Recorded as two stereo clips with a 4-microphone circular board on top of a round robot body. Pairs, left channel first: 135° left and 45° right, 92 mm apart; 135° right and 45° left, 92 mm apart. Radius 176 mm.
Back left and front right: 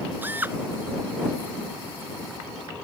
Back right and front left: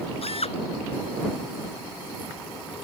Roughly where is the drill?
Behind right.